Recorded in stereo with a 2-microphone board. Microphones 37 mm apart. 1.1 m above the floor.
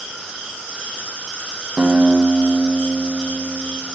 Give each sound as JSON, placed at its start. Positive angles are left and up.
{"t": 1.8, "sound": "a guitar", "side_deg": -25, "distance_m": 1.4}